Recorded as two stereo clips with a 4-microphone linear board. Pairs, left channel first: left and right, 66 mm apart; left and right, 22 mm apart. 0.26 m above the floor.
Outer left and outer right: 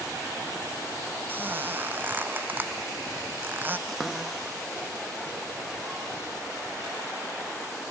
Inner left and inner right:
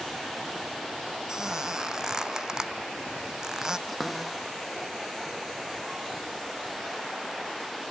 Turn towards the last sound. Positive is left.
turn(degrees=-5)  # may be behind; listen again after turning